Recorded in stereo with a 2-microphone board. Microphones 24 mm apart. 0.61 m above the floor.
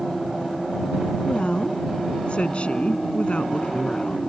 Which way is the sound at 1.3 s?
55° left (ahead or behind).